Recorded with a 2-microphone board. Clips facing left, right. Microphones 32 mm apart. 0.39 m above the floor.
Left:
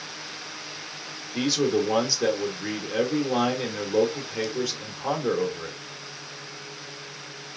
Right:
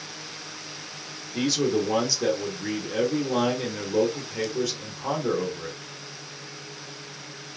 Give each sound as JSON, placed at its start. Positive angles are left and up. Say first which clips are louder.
{"t": 1.3, "sound": "a man speaking", "louder": "left 1 dB", "side_deg": 15, "distance_m": 0.8}